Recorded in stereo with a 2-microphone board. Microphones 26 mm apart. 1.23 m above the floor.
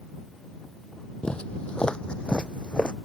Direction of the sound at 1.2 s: 45° left (ahead or behind).